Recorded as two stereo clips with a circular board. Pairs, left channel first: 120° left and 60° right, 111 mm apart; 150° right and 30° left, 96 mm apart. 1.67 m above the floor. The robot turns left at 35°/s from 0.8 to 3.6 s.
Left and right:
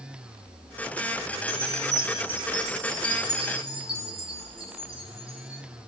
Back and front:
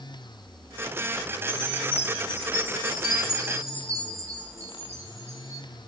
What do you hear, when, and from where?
1.5 s a chime: 45° left, 4 m; by 5.6 s 30° right, 4 m